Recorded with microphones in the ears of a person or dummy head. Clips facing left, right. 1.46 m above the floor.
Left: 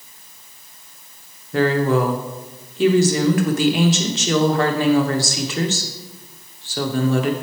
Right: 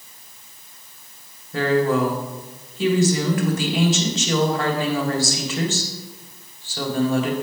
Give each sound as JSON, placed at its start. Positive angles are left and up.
{"t": 1.5, "sound": "a woman speaking", "side_deg": 50, "distance_m": 1.0}